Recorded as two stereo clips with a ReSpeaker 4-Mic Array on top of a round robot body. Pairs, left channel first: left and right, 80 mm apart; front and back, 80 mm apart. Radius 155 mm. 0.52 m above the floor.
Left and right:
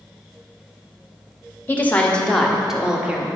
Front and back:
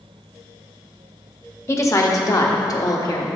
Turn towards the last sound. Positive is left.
turn(degrees=-20)